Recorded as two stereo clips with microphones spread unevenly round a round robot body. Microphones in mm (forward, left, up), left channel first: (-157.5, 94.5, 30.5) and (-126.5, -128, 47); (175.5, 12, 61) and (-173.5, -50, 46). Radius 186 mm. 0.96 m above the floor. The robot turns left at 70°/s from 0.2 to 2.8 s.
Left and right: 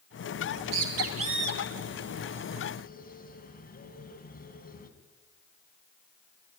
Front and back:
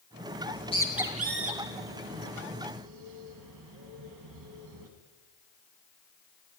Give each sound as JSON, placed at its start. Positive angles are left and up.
{"t": 0.4, "sound": "a bird", "azimuth_deg": -45, "distance_m": 3.0}